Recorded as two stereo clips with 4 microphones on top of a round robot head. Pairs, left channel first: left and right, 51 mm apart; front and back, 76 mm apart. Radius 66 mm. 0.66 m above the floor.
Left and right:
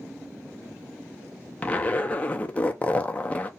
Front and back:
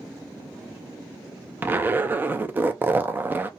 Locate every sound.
1.6 s a zipper: 135° left, 0.5 m